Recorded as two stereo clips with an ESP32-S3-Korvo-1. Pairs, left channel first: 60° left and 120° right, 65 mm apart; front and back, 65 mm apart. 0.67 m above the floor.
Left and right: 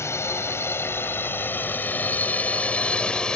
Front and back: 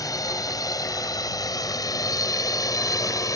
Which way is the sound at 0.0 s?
15° left.